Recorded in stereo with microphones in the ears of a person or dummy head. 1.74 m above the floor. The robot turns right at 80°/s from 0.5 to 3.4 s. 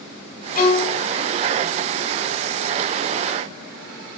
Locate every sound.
0.6 s a violin: 130° left, 3 m; by 1.0 s 165° left, 3 m